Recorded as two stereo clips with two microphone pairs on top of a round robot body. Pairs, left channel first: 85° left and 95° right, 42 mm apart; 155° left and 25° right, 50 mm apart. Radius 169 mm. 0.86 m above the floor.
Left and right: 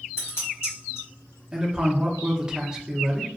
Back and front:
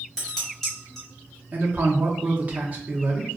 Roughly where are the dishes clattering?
Left.